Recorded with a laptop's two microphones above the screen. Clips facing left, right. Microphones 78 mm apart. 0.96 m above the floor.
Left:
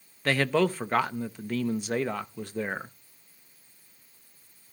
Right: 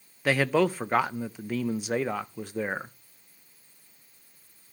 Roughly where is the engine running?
I don't hear an engine running.